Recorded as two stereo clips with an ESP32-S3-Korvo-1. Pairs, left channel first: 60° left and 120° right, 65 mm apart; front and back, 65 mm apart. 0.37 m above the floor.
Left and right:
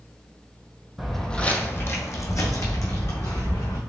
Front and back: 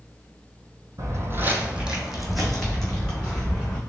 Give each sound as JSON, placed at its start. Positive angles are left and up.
{"t": 1.0, "sound": "footsteps", "azimuth_deg": 155, "distance_m": 0.7}